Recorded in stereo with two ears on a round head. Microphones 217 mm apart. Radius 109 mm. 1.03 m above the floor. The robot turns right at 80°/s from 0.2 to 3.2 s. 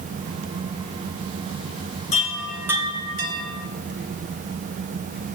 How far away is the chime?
About 1.9 m.